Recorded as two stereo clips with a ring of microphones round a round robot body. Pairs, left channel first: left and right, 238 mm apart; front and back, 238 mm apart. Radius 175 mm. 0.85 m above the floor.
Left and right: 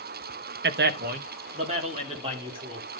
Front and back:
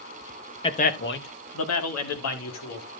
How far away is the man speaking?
About 0.8 m.